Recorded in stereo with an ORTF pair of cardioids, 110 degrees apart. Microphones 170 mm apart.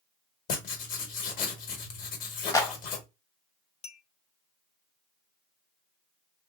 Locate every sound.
0.5 s writing: 55° left, 1.1 m
2.5 s a clap: 20° left, 0.8 m
3.8 s a clink: 40° left, 0.6 m